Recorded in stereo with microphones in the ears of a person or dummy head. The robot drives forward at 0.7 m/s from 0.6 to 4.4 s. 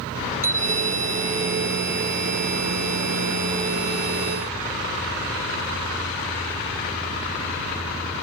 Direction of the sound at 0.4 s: 15° right (ahead or behind).